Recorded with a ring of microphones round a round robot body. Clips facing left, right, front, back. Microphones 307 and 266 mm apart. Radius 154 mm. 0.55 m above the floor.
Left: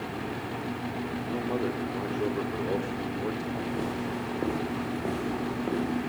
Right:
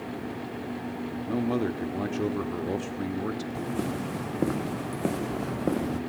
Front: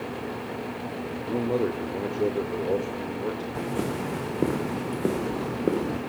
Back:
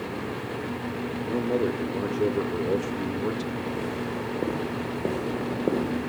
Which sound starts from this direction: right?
A man speaking, at 1.3 s.